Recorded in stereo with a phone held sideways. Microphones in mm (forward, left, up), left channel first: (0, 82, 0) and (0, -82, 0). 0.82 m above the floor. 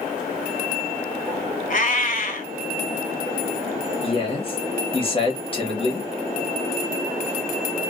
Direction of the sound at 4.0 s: 35° left (ahead or behind).